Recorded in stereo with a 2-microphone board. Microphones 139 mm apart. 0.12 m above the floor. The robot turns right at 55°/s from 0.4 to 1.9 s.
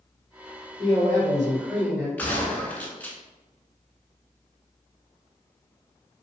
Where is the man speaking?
75° right, 1.8 m; by 2.1 s 15° right, 1.8 m.